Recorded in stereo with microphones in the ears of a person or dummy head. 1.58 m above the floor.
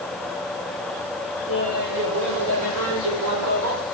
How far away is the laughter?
About 5 m.